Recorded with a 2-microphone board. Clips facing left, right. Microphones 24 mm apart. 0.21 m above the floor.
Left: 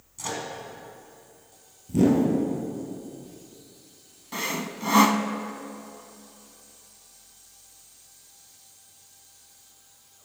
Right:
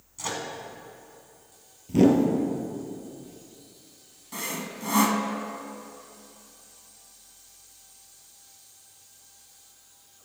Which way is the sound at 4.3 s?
25° left (ahead or behind).